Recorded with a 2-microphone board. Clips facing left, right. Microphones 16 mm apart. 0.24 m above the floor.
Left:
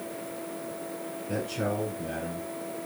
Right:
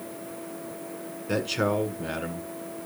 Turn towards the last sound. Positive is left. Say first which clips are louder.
# right 5 dB
turn(degrees=-60)  # may be behind; listen again after turning